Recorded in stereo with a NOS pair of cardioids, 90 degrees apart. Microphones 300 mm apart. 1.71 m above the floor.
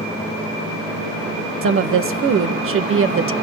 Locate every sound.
1.6 s a woman speaking: 45° right, 1.6 m